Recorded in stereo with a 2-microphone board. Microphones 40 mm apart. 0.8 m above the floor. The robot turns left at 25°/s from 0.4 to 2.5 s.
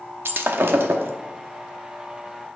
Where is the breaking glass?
70° right (ahead or behind), 0.8 m; by 1.1 s 80° right, 0.8 m.